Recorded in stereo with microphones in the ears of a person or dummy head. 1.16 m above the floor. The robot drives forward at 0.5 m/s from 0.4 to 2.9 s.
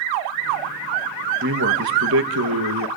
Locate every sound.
1.4 s a man speaking: 60° right (ahead or behind), 1.2 m; by 2.9 s 75° right (ahead or behind), 1.1 m